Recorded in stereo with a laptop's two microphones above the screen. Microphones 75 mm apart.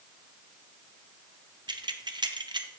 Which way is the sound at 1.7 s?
75° right (ahead or behind).